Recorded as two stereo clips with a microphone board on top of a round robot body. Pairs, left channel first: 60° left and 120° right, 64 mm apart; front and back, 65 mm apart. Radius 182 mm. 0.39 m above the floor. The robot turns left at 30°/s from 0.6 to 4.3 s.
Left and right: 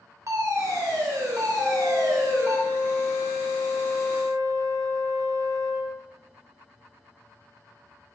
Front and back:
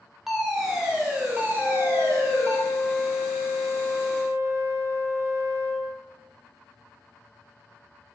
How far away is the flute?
About 5.5 m.